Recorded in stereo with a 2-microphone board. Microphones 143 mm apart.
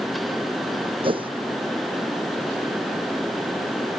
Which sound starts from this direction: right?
A whoosh, at 1.0 s.